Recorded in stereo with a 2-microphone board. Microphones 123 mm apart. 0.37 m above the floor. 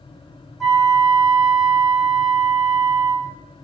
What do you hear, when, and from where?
0.6 s a flute: centre (ahead or behind), 0.9 m